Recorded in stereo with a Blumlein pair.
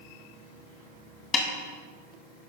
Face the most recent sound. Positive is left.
turn(degrees=20)